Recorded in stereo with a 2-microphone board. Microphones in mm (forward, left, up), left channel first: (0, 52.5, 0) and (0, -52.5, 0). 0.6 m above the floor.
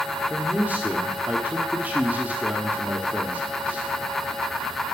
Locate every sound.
0.3 s a man speaking: 15° right (ahead or behind), 1.1 m